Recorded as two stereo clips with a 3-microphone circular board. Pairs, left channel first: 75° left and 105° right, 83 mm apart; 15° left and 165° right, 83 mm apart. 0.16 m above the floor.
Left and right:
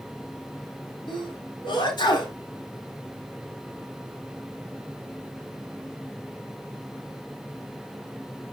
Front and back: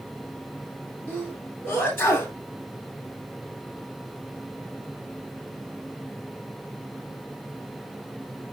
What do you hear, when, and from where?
1.1 s a sneeze: 75° left, 2.5 m